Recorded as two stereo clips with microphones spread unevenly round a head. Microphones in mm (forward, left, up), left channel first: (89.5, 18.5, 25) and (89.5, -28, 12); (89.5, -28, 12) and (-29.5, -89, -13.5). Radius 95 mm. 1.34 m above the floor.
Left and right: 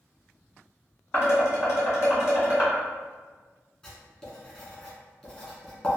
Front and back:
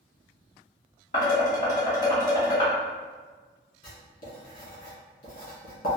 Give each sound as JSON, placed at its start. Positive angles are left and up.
{"t": 1.1, "sound": "dishes clattering", "azimuth_deg": 75, "distance_m": 1.8}
{"t": 3.8, "sound": "writing", "azimuth_deg": 25, "distance_m": 1.8}